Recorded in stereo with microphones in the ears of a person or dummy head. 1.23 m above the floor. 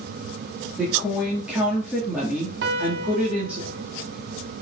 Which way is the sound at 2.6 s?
70° right (ahead or behind).